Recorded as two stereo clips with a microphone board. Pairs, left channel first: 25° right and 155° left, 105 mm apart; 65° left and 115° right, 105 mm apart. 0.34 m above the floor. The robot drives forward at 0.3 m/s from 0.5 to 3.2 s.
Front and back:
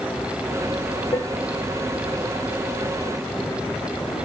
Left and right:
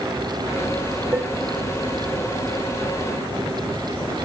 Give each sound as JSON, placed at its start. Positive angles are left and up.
{"t": 1.1, "sound": "dishes clattering", "azimuth_deg": -50, "distance_m": 1.0}